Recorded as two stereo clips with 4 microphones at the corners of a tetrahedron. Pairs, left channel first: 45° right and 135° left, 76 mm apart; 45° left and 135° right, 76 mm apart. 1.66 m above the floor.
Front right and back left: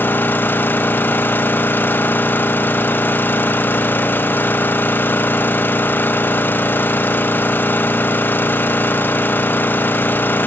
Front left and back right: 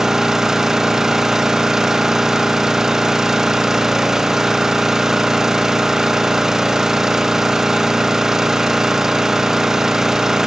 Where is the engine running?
60° right, 0.9 m.